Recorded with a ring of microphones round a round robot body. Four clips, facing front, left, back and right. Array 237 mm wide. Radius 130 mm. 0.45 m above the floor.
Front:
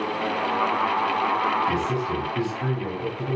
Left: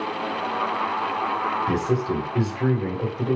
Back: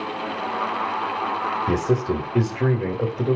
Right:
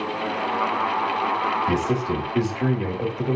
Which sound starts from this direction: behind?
A man speaking, at 1.7 s.